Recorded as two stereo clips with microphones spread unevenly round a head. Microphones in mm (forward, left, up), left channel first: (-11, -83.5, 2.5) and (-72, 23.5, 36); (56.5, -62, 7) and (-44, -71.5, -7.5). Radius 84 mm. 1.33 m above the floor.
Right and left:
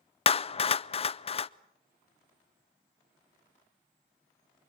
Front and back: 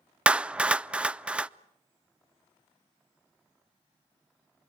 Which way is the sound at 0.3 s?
95° right.